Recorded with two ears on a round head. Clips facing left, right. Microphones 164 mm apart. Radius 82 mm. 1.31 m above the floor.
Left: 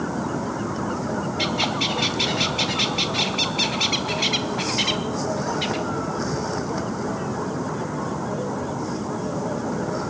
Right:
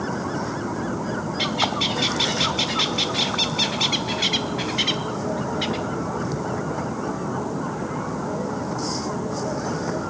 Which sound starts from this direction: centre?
A bird, at 1.4 s.